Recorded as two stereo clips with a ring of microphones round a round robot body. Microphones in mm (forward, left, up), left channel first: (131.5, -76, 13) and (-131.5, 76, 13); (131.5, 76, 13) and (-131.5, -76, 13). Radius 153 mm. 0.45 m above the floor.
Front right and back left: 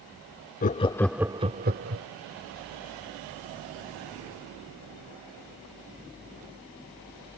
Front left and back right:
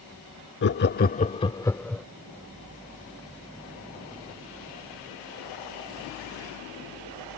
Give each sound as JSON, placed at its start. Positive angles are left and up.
{"t": 0.6, "sound": "laughter", "azimuth_deg": 15}